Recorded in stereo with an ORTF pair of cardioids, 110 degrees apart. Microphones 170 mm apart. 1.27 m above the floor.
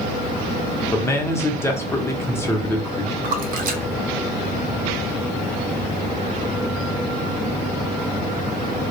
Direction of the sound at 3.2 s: 55° right.